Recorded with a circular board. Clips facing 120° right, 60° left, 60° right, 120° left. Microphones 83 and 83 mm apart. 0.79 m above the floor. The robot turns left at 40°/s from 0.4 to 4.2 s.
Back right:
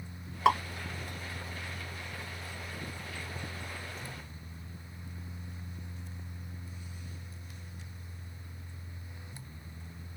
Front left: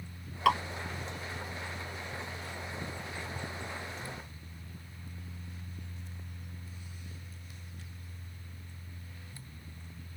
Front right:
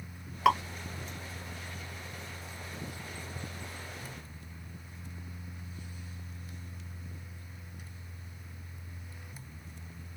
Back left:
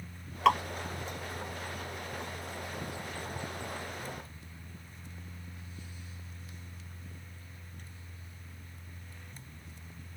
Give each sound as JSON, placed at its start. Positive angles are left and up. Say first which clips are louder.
{"t": 0.5, "sound": "dripping", "louder": "back right 1 dB, even", "azimuth_deg": -135, "distance_m": 0.9}